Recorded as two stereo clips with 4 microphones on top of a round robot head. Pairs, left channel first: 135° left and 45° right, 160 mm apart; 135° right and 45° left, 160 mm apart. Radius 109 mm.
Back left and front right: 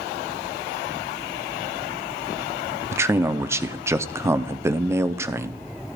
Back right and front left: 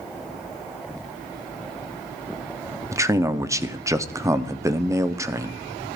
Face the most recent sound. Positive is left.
turn(degrees=5)